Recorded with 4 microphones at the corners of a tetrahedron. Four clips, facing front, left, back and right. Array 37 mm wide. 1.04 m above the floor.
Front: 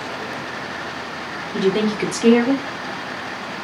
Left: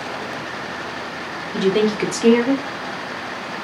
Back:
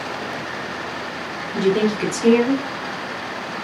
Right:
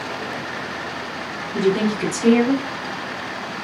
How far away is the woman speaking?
About 1.0 m.